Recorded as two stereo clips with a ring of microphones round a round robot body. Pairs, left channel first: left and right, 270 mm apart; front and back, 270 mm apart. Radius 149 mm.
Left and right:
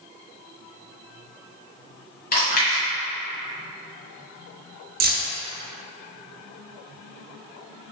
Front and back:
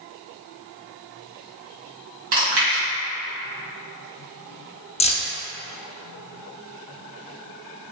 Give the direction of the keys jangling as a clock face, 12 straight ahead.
2 o'clock.